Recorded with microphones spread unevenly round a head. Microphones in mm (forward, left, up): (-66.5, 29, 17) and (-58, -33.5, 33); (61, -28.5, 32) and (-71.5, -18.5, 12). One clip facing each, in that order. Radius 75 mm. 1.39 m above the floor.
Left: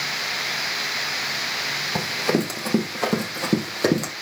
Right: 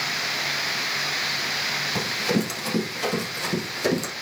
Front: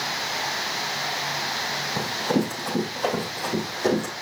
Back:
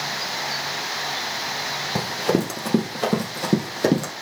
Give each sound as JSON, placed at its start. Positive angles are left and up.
{"t": 1.9, "sound": "running footsteps", "azimuth_deg": 155, "distance_m": 4.0}